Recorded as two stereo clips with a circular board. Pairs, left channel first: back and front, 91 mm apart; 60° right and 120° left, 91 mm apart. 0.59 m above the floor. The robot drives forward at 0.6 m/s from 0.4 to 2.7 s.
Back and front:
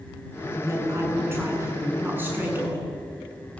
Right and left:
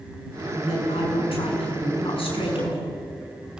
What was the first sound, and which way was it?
A woman speaking, 60° right.